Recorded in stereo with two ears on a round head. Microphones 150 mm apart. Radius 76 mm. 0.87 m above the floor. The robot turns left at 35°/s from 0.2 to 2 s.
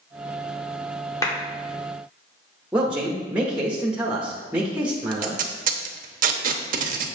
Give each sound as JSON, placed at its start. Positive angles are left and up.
{"t": 1.2, "sound": "a clap", "side_deg": 20, "distance_m": 1.9}
{"t": 2.7, "sound": "a man speaking", "side_deg": -5, "distance_m": 1.1}
{"t": 5.1, "sound": "tape being pulled", "side_deg": -55, "distance_m": 0.8}